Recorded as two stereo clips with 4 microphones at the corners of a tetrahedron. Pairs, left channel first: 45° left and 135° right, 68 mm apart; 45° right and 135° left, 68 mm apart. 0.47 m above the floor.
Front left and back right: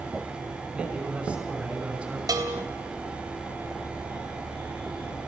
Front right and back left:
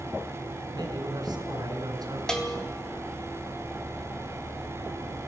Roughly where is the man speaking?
Behind left.